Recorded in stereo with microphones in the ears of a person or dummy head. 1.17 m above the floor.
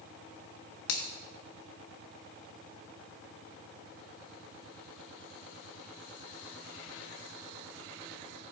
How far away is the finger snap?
About 1.5 m.